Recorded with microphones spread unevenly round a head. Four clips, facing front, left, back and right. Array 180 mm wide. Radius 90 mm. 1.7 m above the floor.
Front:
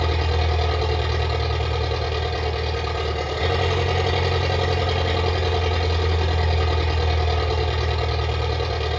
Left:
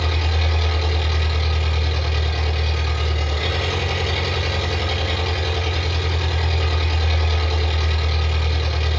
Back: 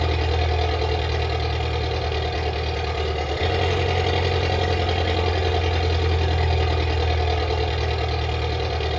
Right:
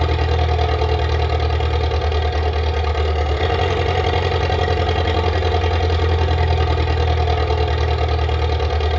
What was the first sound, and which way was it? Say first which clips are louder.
An engine running: right 6 dB, even; 110° right.